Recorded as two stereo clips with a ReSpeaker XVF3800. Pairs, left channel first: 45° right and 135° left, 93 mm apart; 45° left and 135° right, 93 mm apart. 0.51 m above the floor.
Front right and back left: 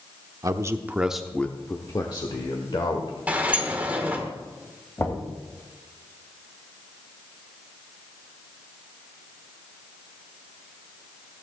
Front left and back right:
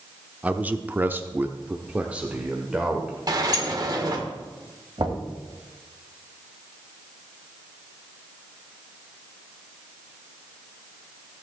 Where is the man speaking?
160° left, 0.8 m; by 3.2 s 55° right, 1.6 m.